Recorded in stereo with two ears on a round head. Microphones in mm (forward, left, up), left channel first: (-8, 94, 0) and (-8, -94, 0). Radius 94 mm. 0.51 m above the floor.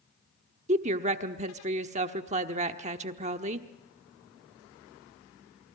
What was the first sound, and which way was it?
A woman speaking, 35° right (ahead or behind).